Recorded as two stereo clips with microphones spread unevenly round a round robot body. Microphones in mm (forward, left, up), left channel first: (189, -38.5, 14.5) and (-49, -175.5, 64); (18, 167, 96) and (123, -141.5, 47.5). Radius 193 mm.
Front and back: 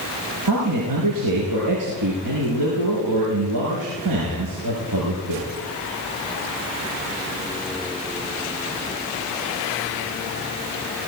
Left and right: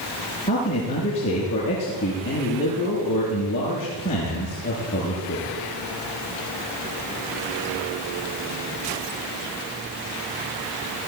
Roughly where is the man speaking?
Behind.